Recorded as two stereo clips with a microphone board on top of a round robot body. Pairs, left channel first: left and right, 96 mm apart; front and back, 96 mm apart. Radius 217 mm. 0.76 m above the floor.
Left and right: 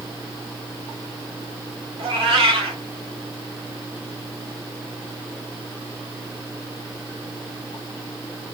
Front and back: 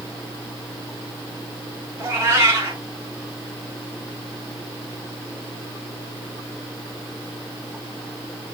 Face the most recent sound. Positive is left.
turn(degrees=-115)